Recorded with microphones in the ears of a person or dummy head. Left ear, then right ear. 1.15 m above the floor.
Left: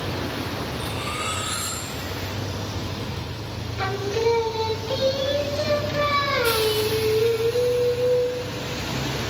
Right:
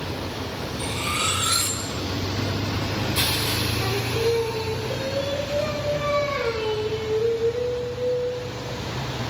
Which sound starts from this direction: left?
Singing, at 3.8 s.